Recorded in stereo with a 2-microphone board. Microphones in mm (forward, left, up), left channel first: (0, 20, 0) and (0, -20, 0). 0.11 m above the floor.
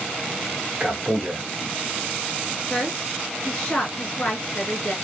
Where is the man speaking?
25° right (ahead or behind), 1.1 m.